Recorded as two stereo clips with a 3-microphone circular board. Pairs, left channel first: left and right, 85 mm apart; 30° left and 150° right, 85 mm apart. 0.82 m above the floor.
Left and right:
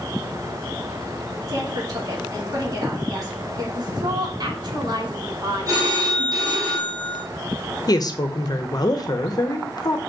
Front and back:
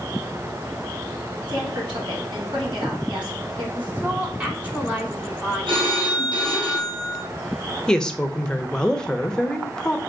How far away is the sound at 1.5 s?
About 2 m.